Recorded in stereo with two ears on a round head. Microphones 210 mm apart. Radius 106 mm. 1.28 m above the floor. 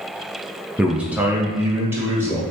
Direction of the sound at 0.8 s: 5° right (ahead or behind).